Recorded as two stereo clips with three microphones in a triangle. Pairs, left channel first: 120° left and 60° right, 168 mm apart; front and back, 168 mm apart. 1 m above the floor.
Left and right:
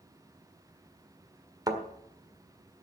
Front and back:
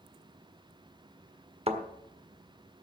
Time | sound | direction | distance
1.7 | a thud | 125° right | 1.6 m